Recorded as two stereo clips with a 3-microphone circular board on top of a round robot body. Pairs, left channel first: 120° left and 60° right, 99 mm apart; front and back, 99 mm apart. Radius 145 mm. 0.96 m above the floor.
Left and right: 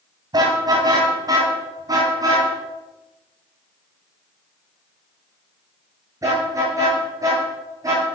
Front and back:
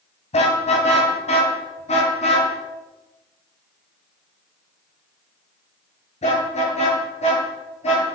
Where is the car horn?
10° right, 3.5 m; by 8.1 s straight ahead, 10.5 m.